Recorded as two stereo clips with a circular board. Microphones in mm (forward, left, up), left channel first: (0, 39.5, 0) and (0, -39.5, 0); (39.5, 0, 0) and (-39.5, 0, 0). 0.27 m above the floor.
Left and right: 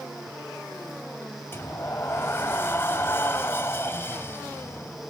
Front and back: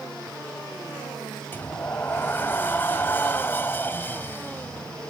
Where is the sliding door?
45° left, 1.1 m.